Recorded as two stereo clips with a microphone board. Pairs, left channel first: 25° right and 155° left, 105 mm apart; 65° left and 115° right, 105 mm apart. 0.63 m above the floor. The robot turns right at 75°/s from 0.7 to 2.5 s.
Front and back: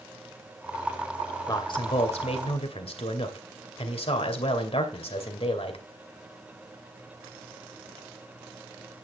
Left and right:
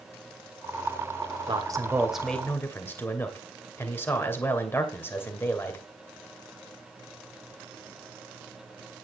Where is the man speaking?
75° right, 2.5 m; by 5.8 s straight ahead, 2.5 m.